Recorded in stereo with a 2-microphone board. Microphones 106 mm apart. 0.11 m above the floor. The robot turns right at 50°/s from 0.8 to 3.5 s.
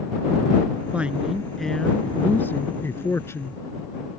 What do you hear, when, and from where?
0.9 s a woman speaking: 10° right (ahead or behind); by 3.6 s 25° left (ahead or behind)